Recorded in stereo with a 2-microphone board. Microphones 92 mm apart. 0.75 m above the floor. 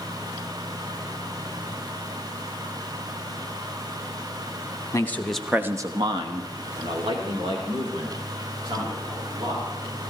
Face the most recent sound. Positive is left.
turn(degrees=-65)  # may be behind; listen again after turning